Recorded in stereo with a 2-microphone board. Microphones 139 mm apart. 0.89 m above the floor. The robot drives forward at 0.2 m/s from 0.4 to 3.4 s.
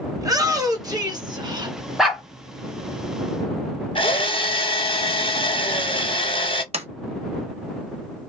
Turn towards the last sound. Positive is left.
turn(degrees=-45)  # may be behind; listen again after turning